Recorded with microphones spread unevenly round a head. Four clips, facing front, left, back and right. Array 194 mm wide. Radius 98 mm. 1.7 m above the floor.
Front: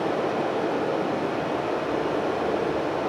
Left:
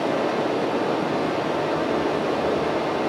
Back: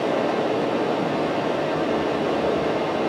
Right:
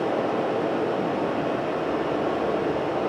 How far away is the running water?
About 6 m.